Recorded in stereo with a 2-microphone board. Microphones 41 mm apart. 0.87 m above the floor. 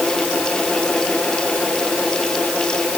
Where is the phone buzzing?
No phone buzzing in this recording.